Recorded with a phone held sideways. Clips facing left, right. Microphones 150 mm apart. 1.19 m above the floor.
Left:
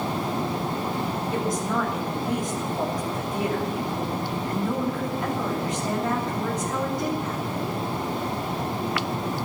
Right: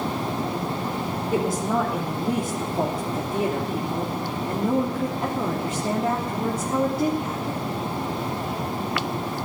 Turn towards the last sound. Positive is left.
turn(degrees=-30)  # may be behind; listen again after turning